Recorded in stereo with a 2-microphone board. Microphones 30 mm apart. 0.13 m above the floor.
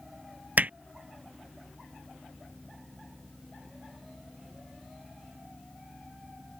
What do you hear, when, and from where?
0.6 s hammering: 60° right (ahead or behind)